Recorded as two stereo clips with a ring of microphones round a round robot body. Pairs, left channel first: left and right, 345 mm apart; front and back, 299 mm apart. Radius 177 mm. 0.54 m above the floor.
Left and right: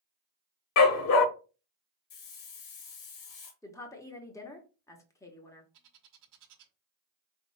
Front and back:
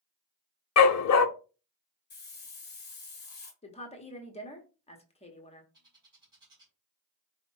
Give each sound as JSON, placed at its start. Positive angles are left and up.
{"t": 0.8, "sound": "a dog barking", "azimuth_deg": 40, "distance_m": 0.7}
{"t": 2.1, "sound": "a hiss", "azimuth_deg": 60, "distance_m": 1.7}
{"t": 3.6, "sound": "a woman speaking", "azimuth_deg": 25, "distance_m": 0.9}
{"t": 5.7, "sound": "a bird", "azimuth_deg": -105, "distance_m": 1.3}